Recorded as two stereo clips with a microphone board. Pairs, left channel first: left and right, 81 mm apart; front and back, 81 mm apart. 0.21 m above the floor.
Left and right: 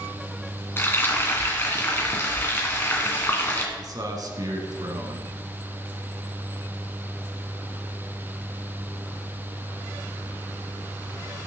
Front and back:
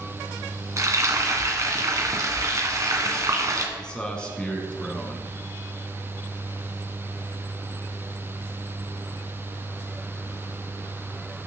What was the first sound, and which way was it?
Frying, 145° left.